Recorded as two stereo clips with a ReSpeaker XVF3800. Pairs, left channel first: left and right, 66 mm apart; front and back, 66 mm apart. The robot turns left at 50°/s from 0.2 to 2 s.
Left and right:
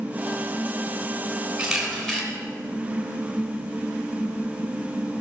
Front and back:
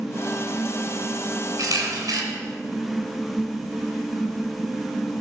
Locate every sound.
1.6 s a camera shutter: 170° right, 3 m; by 2.2 s 170° left, 3 m